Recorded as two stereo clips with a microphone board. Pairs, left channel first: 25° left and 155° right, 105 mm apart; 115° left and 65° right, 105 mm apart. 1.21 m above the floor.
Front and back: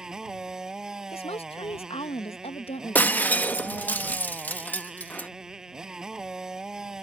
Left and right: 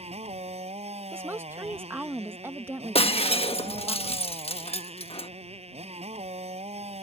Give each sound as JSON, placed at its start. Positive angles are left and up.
{"t": 0.0, "sound": "a motorcycle", "azimuth_deg": -75}
{"t": 1.1, "sound": "a woman speaking", "azimuth_deg": 0}
{"t": 3.0, "sound": "breaking glass", "azimuth_deg": 95}